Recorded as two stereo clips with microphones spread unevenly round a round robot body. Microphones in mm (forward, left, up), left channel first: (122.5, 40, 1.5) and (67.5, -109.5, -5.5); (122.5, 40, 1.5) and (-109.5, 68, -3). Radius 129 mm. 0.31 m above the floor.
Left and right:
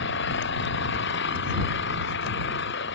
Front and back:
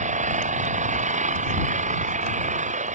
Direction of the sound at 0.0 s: 115° left.